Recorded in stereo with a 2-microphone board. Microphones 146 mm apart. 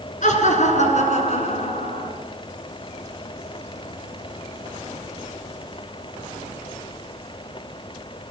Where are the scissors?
I don't hear scissors.